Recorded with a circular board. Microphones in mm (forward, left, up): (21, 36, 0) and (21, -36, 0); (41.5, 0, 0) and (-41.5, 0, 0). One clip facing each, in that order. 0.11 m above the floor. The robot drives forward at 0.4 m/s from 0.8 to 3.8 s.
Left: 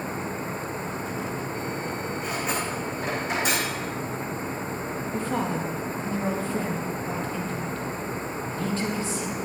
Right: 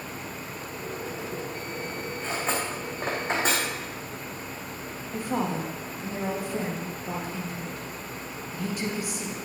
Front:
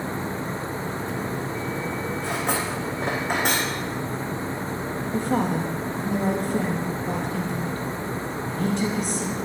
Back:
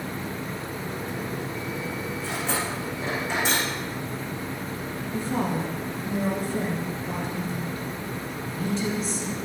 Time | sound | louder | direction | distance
2.2 | cutlery clinking | right 1 dB, front 2 dB | 30° right | 3.5 m
5.1 | a woman speaking | even, front 3 dB | 15° right | 4 m